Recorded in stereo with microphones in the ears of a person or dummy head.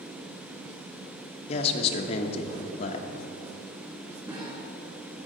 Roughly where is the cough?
Right.